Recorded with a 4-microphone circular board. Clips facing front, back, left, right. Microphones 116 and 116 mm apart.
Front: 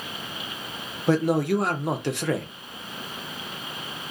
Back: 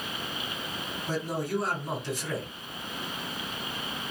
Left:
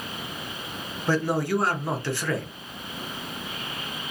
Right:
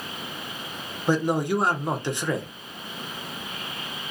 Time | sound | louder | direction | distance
1.1 | a man speaking | front 10 dB, right 1 dB | 20° right | 0.5 m